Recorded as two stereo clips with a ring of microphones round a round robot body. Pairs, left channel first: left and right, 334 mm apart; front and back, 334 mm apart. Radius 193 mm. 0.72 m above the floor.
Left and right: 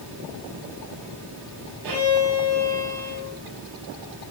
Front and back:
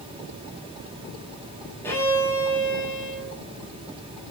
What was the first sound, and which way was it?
A violin, 85° right.